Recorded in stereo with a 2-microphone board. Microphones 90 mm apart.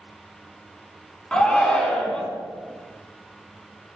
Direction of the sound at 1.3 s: 10° left (ahead or behind).